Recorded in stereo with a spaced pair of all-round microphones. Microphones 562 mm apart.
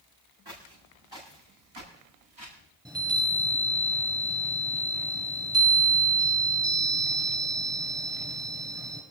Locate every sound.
0.5 s footsteps: 45° right (ahead or behind), 8.5 m; by 2.6 s 55° right (ahead or behind), 9 m
2.9 s a chime: 5° right (ahead or behind), 6.5 m